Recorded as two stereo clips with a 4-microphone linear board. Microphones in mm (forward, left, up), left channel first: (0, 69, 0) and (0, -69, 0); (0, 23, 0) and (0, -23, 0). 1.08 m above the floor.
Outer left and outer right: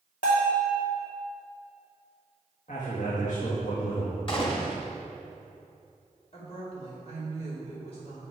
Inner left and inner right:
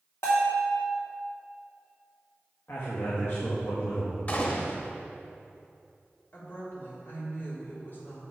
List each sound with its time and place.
0.2 s a bell: 85° left, 2.5 m
2.7 s a man speaking: 65° left (ahead or behind), 1.7 m
4.3 s a gunshot: 40° left (ahead or behind), 1.2 m
6.3 s a woman speaking: 50° left (ahead or behind), 3 m